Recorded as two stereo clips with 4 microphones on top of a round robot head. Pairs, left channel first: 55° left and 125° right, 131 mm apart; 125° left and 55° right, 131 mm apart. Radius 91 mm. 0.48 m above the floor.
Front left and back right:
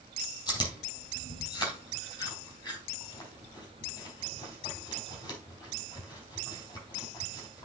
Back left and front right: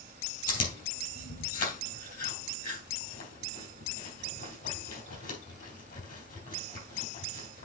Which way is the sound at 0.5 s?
115° left.